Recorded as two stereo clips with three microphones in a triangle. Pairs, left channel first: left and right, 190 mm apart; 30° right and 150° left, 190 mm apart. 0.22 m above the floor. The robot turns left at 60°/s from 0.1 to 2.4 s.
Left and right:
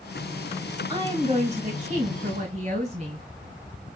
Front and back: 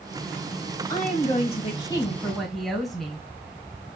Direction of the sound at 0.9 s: 30° right.